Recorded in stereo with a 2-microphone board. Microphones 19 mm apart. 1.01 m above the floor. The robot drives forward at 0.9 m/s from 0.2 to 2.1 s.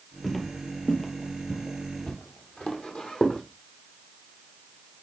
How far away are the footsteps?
About 1.3 m.